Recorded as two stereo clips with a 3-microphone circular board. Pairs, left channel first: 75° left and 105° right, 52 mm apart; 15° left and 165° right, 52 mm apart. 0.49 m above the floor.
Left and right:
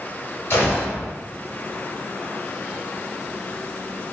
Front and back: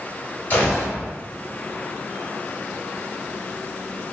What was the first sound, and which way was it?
A gunshot, 60° left.